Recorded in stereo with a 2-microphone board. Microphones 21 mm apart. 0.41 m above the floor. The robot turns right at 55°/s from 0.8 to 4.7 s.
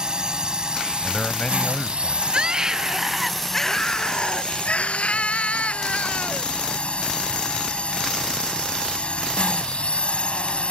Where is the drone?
130° right; by 10.7 s 85° left.